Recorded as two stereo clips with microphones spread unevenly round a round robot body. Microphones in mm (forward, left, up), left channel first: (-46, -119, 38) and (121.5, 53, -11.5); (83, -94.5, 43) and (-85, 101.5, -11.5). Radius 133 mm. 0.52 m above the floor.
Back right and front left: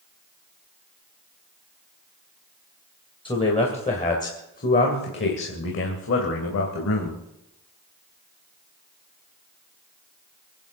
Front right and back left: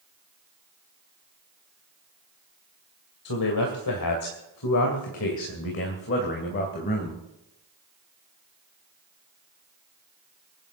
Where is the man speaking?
60° right, 2.5 m; by 7.2 s 110° right, 3 m.